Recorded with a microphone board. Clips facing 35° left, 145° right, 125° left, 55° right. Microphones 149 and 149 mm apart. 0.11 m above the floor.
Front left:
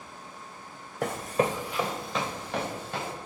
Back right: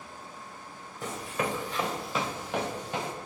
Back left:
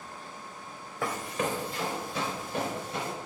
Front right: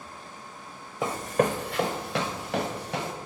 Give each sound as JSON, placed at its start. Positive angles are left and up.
{"t": 1.0, "sound": "running footsteps", "azimuth_deg": 15, "distance_m": 0.8}